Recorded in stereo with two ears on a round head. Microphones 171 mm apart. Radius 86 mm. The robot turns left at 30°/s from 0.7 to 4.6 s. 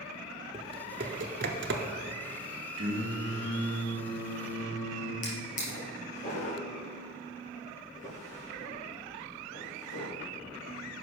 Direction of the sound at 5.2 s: 40° left (ahead or behind).